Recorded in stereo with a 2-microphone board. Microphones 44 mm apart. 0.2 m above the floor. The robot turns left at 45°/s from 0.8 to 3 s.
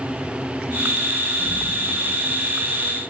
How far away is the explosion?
About 5 m.